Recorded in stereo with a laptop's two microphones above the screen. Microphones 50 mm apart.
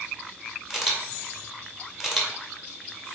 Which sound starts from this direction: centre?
A camera shutter, at 0.7 s.